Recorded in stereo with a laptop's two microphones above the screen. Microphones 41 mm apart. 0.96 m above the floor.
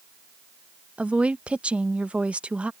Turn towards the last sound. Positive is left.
turn(degrees=-30)  # may be behind; listen again after turning